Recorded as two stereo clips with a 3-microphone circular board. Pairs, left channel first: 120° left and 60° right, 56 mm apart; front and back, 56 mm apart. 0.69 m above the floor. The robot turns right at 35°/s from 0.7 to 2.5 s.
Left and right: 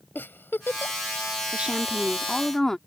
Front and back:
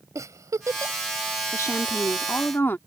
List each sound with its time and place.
0.1 s a giggle: 170° left; by 0.9 s straight behind
1.5 s a woman speaking: 5° left; by 2.8 s 40° left